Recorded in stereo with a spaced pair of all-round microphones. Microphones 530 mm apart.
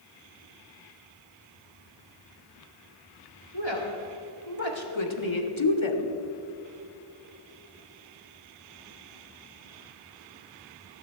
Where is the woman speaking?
55° left (ahead or behind), 3.5 m.